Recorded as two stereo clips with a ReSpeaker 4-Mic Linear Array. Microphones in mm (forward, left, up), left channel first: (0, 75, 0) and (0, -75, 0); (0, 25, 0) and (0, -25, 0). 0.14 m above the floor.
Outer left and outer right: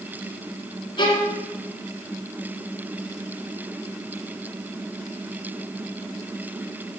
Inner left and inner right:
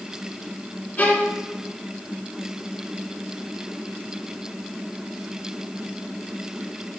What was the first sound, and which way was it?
A violin, 35° left (ahead or behind).